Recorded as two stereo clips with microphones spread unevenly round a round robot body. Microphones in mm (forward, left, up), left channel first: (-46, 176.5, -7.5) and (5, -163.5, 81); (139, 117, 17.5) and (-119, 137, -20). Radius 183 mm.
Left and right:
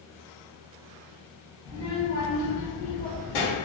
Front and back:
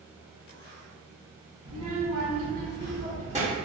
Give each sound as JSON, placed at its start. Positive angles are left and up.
{"t": 1.6, "sound": "a child speaking", "azimuth_deg": 180, "distance_m": 1.2}